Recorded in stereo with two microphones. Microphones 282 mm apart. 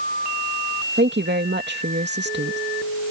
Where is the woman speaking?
40° right (ahead or behind).